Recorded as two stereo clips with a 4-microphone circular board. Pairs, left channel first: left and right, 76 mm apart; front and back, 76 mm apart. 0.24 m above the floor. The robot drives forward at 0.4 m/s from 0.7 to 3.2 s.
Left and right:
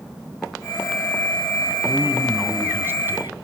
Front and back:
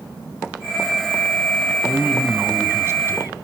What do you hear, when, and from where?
1.7 s a man speaking: 130° right, 2.0 m; by 3.4 s 145° right, 2.5 m